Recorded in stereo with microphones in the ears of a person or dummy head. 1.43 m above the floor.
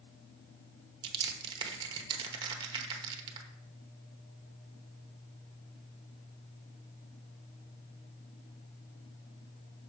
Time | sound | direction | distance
1.0 | crushing | 25° right (ahead or behind) | 0.9 m